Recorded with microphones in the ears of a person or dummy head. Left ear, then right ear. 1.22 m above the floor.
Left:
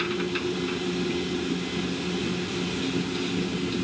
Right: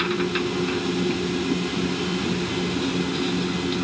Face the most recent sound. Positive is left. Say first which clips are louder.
# right 4 dB
turn(degrees=-10)  # may be behind; listen again after turning